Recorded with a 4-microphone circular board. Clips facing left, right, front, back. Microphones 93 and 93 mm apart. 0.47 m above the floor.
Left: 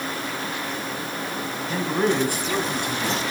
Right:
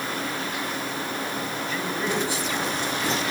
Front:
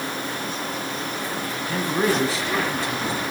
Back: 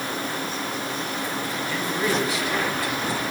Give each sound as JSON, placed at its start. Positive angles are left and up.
{"t": 1.7, "sound": "a man speaking", "azimuth_deg": 40, "distance_m": 3.0}